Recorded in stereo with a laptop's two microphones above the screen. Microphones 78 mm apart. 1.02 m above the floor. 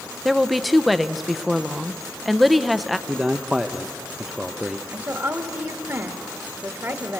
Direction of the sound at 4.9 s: 40° right (ahead or behind).